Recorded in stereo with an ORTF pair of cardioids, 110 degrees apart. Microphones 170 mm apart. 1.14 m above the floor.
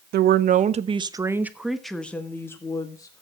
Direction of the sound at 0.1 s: 65° right.